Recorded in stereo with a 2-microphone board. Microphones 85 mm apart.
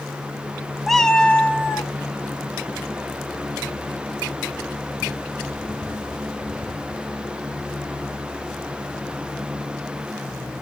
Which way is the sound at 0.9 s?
Centre (ahead or behind).